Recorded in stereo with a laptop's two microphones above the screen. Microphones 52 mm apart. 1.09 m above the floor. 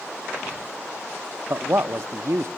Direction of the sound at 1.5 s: 60° right (ahead or behind).